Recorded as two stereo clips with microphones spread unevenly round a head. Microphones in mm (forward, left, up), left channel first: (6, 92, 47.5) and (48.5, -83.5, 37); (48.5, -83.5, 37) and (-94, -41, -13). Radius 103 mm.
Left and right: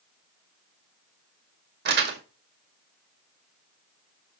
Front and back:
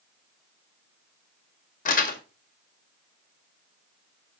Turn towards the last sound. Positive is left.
turn(degrees=-45)